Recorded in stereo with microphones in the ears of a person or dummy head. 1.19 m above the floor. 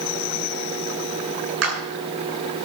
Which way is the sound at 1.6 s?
80° right.